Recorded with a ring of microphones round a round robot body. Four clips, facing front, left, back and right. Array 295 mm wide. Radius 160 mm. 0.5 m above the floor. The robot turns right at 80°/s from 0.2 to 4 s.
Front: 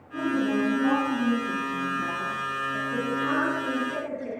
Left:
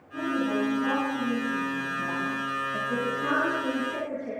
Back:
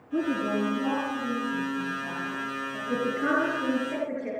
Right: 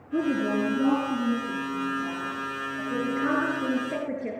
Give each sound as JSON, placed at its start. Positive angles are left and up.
{"t": 0.1, "sound": "a woman speaking", "azimuth_deg": -120, "distance_m": 9.5}
{"t": 2.9, "sound": "a woman speaking", "azimuth_deg": 170, "distance_m": 9.0}